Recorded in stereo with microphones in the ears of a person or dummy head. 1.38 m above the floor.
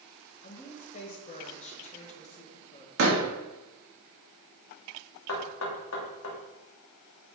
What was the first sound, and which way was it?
A woman speaking, 40° left (ahead or behind).